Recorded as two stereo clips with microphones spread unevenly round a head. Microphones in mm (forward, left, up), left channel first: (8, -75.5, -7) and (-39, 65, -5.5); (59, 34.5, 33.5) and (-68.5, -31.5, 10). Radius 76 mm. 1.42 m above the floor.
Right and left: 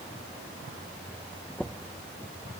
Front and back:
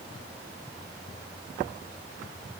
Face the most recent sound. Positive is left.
No sound to turn to.